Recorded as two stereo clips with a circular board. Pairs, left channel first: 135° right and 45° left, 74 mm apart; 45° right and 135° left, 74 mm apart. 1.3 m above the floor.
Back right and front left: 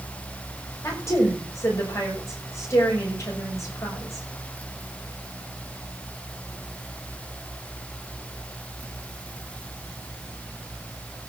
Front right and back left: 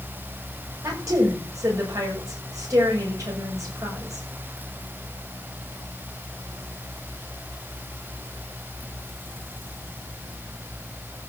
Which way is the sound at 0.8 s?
175° left.